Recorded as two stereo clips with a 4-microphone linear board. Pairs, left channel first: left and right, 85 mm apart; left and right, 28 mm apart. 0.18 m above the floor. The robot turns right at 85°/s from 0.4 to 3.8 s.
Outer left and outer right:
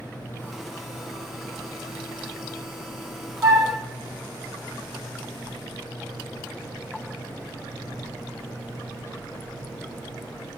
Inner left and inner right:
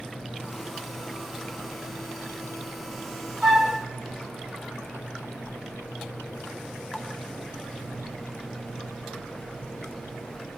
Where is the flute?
30° right (ahead or behind), 1.9 m; by 3.7 s 55° right (ahead or behind), 1.9 m.